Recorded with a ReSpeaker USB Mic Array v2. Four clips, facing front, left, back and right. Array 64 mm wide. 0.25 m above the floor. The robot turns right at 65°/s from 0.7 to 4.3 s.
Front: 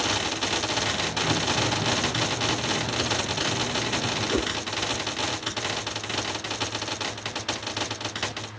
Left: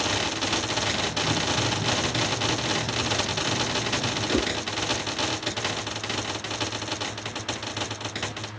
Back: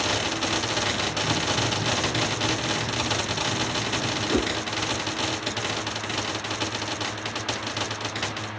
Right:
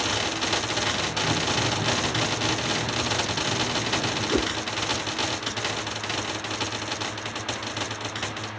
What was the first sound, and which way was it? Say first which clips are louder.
A whoosh: even, back 3 dB; 145° left.